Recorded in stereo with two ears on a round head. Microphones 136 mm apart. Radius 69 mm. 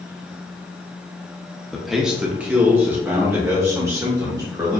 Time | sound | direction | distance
1.7 | a man speaking | centre (ahead or behind) | 0.8 m